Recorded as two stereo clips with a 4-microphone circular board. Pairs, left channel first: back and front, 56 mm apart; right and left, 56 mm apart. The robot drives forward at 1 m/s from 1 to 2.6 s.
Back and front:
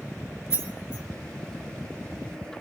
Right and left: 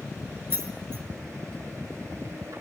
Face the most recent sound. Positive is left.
turn(degrees=150)